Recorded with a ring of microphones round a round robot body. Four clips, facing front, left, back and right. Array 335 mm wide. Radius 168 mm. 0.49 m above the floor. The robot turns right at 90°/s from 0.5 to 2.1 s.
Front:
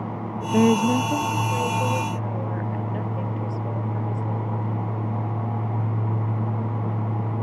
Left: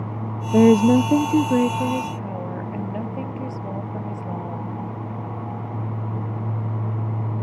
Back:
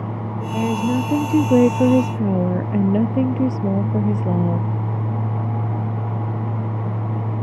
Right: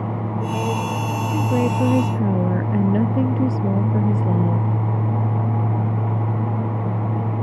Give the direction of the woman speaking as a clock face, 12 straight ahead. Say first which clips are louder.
Left 13 dB, front 2 dB; 10 o'clock.